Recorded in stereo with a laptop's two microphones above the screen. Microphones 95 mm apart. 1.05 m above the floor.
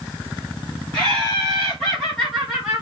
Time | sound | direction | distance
0.9 | laughter | 15° left (ahead or behind) | 1.6 m